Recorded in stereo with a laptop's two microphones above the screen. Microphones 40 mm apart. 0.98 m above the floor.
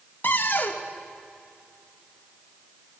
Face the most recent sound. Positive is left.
turn(degrees=55)  # may be behind; listen again after turning